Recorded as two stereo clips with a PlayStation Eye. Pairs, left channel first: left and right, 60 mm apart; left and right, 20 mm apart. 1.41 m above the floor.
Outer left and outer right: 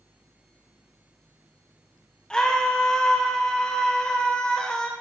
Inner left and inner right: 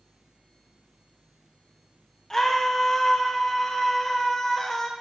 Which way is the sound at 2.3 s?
15° left (ahead or behind).